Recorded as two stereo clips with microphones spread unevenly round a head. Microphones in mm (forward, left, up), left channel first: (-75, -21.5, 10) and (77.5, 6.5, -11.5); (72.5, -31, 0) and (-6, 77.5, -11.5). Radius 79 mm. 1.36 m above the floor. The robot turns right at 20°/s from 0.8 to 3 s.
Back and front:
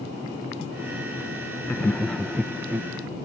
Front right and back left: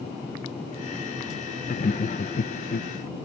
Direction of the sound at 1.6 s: 95° right.